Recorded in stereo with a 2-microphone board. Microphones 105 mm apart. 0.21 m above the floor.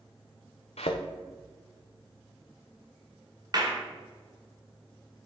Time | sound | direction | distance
0.8 | a thud | 80° left | 1.0 m
3.5 | a clap | 40° right (ahead or behind) | 2 m